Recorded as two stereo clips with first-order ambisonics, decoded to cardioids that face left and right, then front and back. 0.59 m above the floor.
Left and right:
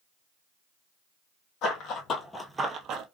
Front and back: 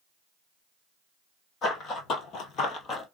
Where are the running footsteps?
55° left, 1.3 m; by 3.0 s 65° right, 0.9 m.